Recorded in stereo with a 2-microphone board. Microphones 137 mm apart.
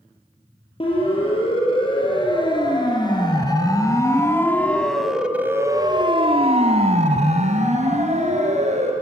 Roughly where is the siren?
Left.